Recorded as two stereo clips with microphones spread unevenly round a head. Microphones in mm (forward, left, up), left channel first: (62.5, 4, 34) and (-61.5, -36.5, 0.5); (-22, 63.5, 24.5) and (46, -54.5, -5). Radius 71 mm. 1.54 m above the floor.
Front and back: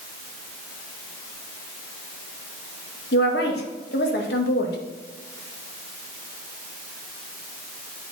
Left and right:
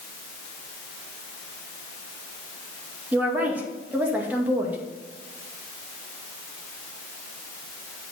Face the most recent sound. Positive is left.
turn(degrees=20)